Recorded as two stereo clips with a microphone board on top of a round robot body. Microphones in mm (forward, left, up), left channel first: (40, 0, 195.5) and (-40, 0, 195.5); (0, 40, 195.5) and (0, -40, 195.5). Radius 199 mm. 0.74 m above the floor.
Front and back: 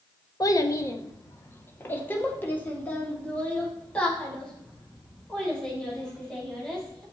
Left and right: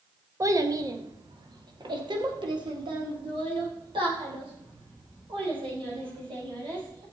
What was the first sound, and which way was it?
A child speaking, 40° right.